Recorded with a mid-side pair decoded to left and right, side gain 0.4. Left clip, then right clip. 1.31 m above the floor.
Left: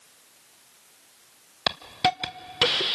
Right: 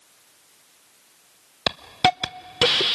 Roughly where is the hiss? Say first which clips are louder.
Right 4 dB; ahead right.